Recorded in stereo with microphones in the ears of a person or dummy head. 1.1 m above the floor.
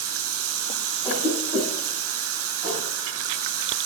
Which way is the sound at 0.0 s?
70° right (ahead or behind).